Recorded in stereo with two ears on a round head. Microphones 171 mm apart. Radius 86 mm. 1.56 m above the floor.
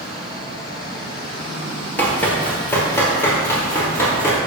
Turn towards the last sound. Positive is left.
turn(degrees=15)  # may be behind; listen again after turning